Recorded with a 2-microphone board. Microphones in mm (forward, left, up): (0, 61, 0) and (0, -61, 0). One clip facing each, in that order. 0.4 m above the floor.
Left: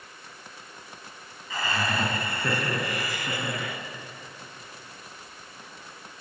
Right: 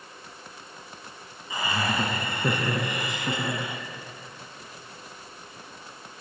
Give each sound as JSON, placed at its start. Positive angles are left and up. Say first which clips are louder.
{"t": 1.5, "sound": "laughter", "louder": "right 1 dB", "side_deg": -15, "distance_m": 5.0}